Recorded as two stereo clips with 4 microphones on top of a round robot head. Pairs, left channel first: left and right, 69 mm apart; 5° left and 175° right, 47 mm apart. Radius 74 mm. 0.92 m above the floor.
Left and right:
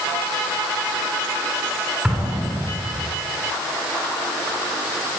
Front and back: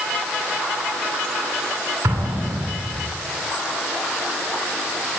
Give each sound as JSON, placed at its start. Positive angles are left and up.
{"t": 2.0, "sound": "an explosion", "azimuth_deg": -165, "distance_m": 9.0}